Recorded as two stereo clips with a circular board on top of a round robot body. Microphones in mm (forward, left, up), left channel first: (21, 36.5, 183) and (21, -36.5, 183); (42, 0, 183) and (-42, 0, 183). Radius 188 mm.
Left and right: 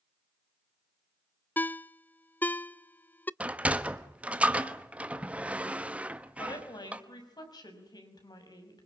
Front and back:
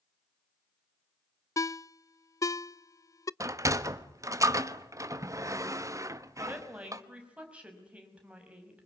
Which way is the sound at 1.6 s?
30° left.